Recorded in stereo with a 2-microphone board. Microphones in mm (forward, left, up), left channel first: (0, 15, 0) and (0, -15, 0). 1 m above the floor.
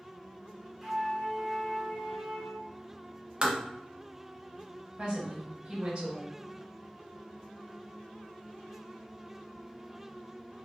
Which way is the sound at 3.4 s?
35° right (ahead or behind).